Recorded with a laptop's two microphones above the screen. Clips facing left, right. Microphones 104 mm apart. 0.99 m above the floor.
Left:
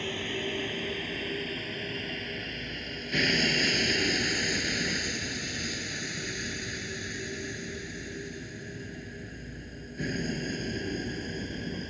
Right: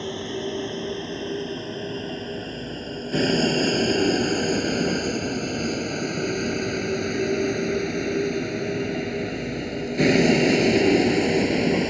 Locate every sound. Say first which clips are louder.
0.0 s a vehicle: right 5 dB; 20° right (ahead or behind); by 11.9 s 85° right